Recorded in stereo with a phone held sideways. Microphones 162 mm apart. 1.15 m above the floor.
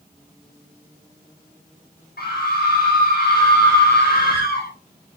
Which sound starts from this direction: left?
A scream, at 2.2 s.